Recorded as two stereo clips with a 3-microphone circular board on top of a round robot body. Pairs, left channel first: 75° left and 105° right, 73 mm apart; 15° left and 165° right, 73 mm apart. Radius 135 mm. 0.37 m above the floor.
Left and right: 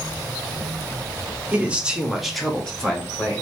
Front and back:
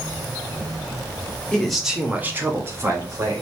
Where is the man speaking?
55° right, 1.2 m; by 3.4 s 150° left, 2 m.